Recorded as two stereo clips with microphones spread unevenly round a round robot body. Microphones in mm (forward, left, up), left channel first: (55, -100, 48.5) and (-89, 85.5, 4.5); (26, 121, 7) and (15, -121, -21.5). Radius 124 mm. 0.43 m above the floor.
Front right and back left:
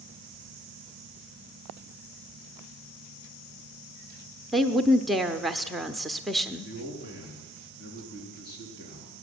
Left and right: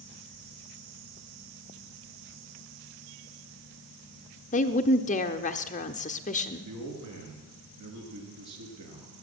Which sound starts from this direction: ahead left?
A woman speaking, at 4.5 s.